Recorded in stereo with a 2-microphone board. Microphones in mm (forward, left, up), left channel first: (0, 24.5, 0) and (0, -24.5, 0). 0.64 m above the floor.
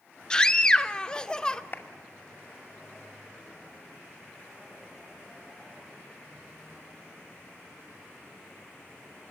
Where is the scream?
20° left (ahead or behind), 1.3 m.